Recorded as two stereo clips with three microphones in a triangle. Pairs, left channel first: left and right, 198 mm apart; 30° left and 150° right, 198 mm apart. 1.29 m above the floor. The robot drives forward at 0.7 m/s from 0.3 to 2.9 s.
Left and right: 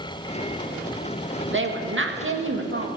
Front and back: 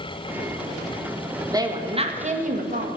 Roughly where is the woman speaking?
Right.